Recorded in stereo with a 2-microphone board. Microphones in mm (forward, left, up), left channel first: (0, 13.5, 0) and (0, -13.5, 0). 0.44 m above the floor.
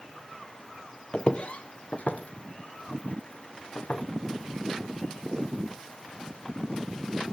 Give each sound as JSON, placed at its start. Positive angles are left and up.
{"t": 1.1, "sound": "footsteps", "side_deg": 30, "distance_m": 0.7}